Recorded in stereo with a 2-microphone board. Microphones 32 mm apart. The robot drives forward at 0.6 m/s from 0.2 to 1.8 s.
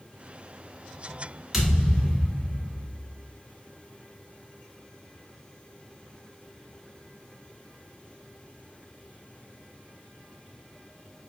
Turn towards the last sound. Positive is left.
turn(degrees=-10)  # may be behind; listen again after turning